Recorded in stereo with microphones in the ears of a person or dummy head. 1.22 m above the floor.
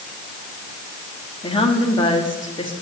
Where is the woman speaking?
25° left (ahead or behind), 2.5 m.